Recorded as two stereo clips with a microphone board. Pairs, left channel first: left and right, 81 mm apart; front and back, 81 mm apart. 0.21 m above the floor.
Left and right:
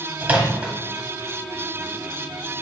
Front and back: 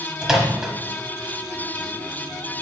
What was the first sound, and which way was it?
A microwave, 105° right.